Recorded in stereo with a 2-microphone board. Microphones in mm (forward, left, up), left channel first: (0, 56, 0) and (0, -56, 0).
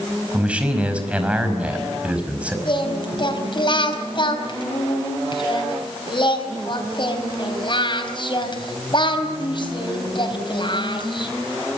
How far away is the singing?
About 4 m.